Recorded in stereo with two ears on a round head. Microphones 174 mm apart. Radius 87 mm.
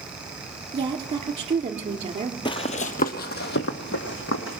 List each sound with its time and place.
0.7 s a woman speaking: 30° right (ahead or behind), 2 m
2.5 s running footsteps: 25° left (ahead or behind), 1.0 m; by 4.6 s 65° left (ahead or behind), 2.5 m